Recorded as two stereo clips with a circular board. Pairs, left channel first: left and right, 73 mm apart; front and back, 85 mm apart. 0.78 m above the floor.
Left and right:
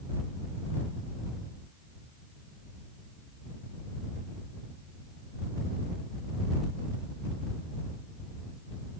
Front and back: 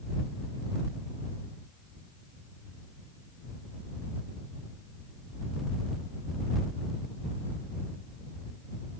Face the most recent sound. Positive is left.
No sound to turn to.